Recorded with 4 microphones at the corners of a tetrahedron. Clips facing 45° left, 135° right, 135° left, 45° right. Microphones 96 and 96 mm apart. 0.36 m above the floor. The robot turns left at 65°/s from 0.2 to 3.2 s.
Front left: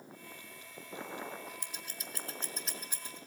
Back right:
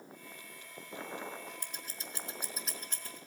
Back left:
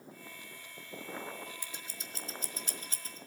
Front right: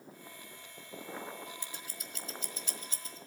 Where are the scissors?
155° right, 1.4 m; by 3.2 s 105° left, 1.4 m.